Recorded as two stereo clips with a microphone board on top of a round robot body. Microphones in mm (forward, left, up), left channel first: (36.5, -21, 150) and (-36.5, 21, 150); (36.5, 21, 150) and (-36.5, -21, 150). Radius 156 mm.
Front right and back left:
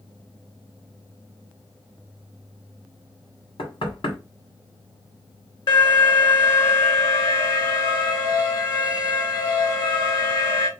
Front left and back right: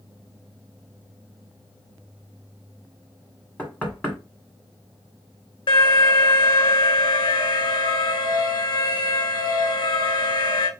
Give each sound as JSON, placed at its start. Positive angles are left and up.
{"t": 3.6, "sound": "knocking", "azimuth_deg": -45, "distance_m": 2.0}
{"t": 5.7, "sound": "an alarm", "azimuth_deg": 5, "distance_m": 1.6}